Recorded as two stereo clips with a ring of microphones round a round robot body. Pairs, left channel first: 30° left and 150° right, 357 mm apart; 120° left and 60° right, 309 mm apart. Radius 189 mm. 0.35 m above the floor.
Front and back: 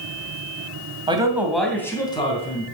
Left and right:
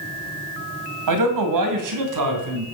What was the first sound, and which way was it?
A man speaking, 75° right.